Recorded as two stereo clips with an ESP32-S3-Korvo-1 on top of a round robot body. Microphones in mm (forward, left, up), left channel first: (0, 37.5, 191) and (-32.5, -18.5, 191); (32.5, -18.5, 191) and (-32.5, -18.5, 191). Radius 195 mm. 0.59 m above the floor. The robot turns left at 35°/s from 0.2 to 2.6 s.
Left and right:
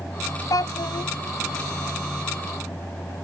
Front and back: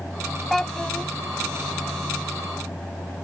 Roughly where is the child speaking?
Left.